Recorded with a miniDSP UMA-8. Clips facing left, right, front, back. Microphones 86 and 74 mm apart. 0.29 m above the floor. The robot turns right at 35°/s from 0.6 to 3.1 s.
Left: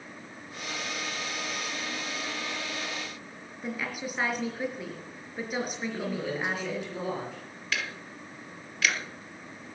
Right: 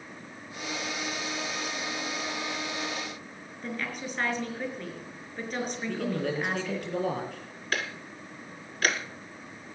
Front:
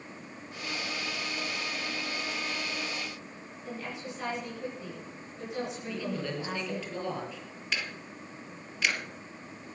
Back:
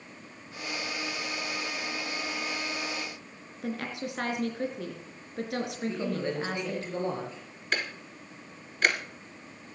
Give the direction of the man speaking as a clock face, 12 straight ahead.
4 o'clock.